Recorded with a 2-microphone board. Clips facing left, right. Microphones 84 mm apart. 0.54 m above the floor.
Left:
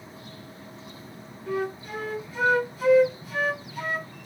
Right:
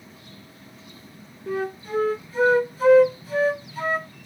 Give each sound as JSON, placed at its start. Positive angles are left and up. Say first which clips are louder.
{"t": 1.5, "sound": "a flute", "louder": "right 2 dB", "side_deg": -35, "distance_m": 0.8}